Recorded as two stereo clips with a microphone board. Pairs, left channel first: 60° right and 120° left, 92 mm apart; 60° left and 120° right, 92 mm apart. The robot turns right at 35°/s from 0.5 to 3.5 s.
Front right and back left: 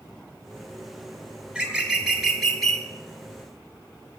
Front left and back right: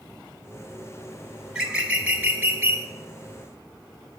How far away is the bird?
About 1.6 m.